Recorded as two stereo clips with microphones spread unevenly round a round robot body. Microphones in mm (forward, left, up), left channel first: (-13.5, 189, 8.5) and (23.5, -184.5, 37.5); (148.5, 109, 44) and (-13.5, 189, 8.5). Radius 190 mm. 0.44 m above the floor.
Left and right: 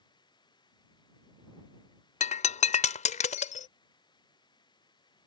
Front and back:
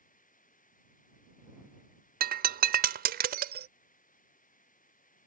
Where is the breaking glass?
165° left.